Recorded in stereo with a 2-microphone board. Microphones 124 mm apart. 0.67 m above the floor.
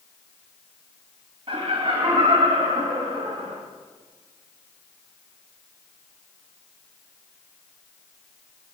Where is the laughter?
40° right (ahead or behind), 1.3 m; by 3.6 s 45° right (ahead or behind), 2 m.